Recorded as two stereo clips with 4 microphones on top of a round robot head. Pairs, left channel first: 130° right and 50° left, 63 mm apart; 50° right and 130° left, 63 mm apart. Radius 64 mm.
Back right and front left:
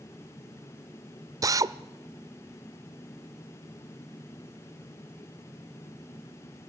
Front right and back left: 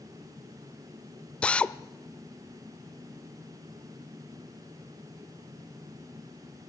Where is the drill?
25° left, 0.7 m.